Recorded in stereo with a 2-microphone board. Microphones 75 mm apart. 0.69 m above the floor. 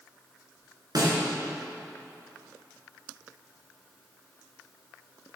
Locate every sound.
0.9 s a snare drum: 60° right (ahead or behind), 1.9 m